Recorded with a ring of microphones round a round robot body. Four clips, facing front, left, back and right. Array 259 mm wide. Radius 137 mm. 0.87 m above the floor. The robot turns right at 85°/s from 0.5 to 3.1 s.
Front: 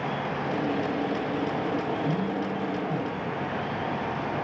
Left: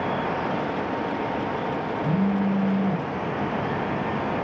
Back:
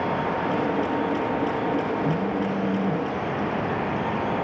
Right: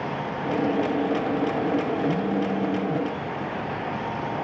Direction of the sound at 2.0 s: 70° left.